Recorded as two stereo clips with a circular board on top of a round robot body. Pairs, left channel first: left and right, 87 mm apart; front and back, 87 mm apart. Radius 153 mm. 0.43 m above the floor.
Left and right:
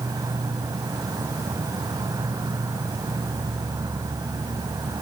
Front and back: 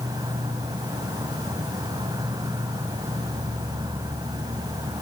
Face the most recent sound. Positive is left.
turn(degrees=-135)